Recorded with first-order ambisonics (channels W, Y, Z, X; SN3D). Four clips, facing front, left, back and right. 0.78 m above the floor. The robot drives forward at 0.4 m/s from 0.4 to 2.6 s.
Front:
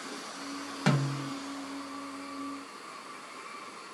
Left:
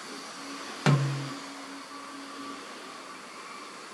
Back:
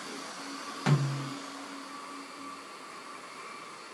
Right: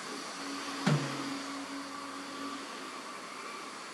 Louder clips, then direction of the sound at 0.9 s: Left 5 dB, front 1 dB; 80° left.